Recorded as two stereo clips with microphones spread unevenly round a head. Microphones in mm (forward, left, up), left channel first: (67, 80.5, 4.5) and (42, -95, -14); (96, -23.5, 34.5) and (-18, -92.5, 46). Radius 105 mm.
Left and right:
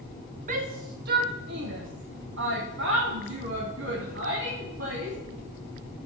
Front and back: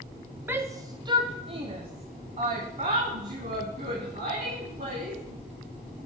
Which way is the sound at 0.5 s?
70° right.